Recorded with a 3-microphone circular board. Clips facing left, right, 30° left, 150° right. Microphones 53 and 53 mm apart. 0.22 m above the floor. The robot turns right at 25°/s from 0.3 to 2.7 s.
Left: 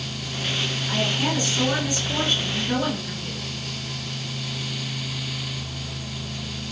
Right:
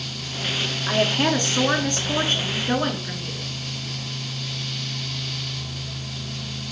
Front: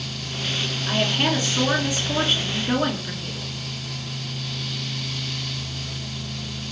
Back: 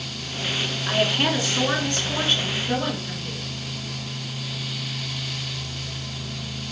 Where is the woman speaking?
75° right, 2 m; by 3.5 s 30° right, 2 m.